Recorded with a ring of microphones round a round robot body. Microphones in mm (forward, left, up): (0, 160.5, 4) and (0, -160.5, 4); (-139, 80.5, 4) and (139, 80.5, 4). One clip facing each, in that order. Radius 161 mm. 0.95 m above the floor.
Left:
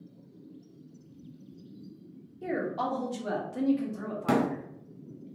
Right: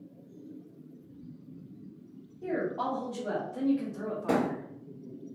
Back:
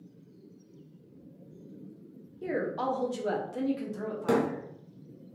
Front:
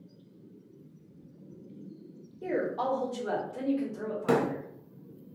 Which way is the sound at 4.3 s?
90° left.